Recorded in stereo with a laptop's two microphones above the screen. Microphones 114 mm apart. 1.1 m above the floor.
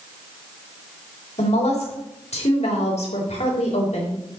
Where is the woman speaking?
70° left (ahead or behind), 3 m.